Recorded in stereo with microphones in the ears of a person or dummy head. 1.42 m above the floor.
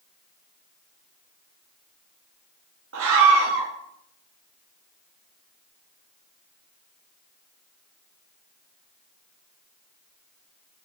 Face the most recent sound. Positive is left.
turn(degrees=-70)  # may be behind; listen again after turning